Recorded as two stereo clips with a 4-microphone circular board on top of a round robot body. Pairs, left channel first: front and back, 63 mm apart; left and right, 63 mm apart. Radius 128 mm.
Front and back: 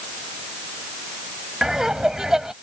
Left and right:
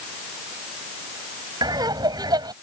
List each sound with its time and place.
1.6 s laughter: 95° right